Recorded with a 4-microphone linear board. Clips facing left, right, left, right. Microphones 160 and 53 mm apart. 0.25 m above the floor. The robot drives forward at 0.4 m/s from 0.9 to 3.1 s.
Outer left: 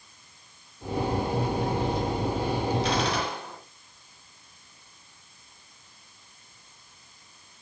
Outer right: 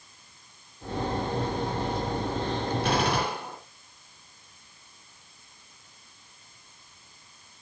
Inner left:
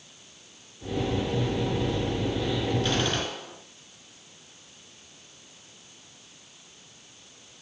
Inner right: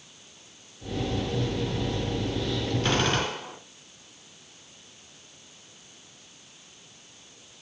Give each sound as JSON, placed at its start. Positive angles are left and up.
{"t": 2.8, "sound": "a gunshot", "side_deg": -60, "distance_m": 2.5}